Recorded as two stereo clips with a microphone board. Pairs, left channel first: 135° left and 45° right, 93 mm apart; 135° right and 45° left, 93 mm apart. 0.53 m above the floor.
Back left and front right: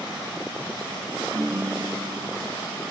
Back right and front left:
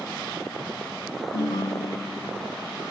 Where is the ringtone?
105° right, 0.7 m.